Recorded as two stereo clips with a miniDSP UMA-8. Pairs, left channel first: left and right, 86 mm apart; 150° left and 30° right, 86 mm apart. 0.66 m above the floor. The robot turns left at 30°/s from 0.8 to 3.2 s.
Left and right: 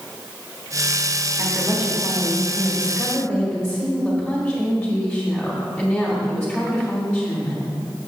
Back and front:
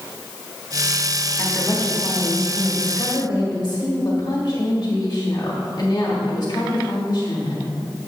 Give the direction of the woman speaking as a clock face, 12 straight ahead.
4 o'clock.